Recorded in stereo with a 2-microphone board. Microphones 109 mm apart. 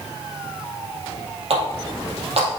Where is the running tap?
65° right (ahead or behind), 3 m.